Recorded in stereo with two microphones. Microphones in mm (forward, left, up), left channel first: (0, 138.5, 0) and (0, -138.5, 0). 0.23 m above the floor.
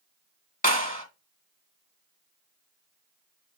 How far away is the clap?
About 1.3 m.